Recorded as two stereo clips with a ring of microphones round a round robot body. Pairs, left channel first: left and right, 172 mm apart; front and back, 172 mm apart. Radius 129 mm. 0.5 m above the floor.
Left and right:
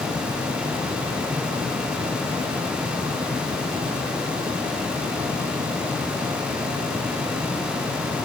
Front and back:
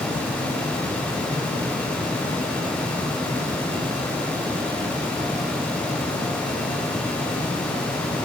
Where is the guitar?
No guitar in this recording.